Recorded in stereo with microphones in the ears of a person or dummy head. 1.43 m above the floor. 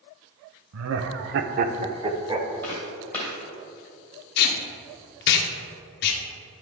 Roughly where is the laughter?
Right.